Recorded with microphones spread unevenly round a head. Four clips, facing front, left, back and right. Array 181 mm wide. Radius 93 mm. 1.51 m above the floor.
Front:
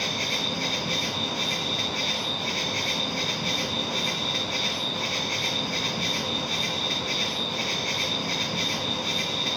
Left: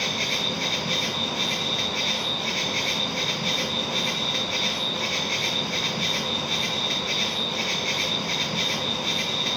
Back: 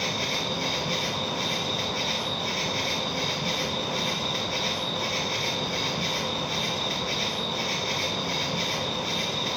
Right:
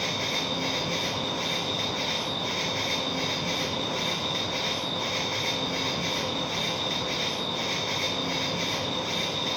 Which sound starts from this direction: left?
An insect, at 0.0 s.